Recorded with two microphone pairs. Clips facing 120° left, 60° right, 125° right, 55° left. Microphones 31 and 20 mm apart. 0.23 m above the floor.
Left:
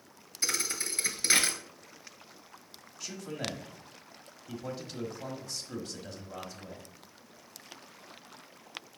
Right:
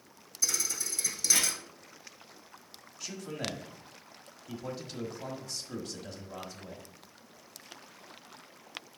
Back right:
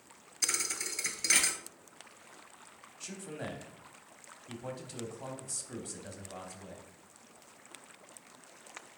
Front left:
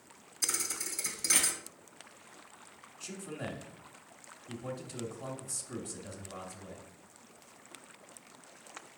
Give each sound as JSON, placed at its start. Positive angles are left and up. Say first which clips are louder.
{"t": 0.4, "sound": "a thud", "louder": "left 1 dB, back right 2 dB", "azimuth_deg": 170, "distance_m": 0.9}
{"t": 3.0, "sound": "a man speaking", "louder": "even, front left 1 dB", "azimuth_deg": -150, "distance_m": 1.0}